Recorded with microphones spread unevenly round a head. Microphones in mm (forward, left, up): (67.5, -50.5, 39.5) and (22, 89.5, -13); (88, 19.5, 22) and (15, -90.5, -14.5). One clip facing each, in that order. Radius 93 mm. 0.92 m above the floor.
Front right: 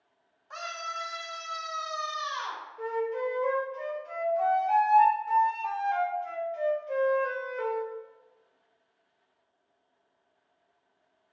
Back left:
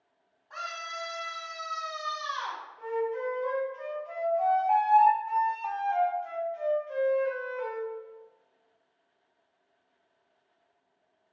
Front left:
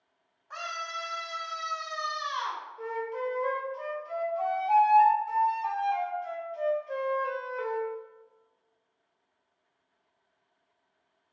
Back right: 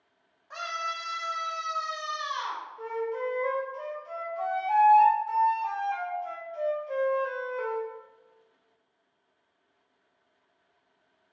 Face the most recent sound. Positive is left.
turn(degrees=-35)